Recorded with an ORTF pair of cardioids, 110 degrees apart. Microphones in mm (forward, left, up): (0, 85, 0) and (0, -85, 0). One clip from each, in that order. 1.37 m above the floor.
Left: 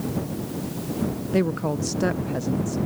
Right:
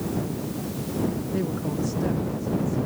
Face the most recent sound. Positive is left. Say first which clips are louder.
# left 4 dB
turn(degrees=65)